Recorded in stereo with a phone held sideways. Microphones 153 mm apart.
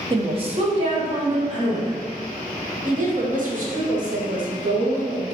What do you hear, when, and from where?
0.1 s a woman speaking: 30° right (ahead or behind), 0.6 m; by 2.0 s 50° right (ahead or behind), 2 m
2.9 s a woman speaking: 60° right (ahead or behind), 1.2 m